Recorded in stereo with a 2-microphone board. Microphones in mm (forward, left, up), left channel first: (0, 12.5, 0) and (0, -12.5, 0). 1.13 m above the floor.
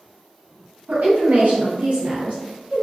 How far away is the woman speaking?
About 1.1 m.